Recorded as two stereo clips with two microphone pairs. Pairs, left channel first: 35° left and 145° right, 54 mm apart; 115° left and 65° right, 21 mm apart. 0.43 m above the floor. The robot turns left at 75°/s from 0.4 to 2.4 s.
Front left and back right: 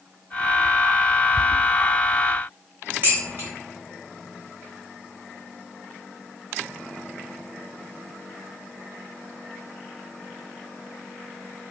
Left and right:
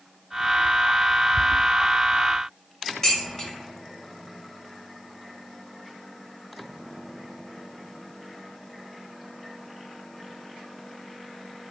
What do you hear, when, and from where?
3.0 s dishes clattering: 175° left, 1.2 m